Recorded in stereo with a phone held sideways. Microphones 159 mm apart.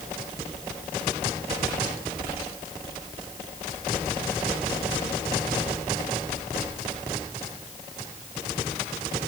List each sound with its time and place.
Only background noise.